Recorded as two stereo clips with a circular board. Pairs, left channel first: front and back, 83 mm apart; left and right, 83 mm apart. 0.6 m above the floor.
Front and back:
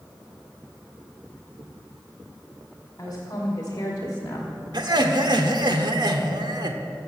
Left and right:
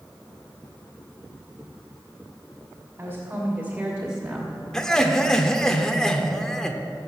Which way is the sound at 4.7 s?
175° left.